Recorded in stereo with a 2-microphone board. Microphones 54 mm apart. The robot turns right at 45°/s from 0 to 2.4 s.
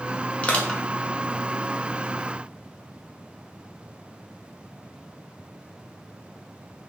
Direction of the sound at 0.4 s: 30° left (ahead or behind).